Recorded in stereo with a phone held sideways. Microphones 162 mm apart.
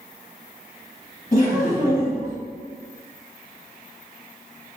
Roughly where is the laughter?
Left.